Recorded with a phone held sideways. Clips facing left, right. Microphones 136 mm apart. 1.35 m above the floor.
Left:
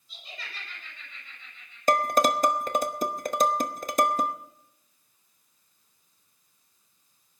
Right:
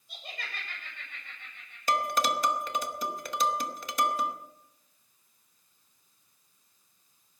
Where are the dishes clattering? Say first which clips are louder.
Left 5 dB; 45° left (ahead or behind), 0.8 m.